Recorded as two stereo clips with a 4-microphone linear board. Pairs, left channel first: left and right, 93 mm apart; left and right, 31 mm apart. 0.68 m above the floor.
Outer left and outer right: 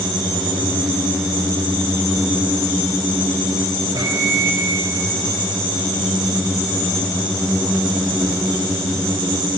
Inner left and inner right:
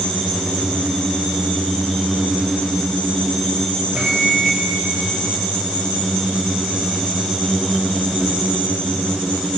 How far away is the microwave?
About 2 m.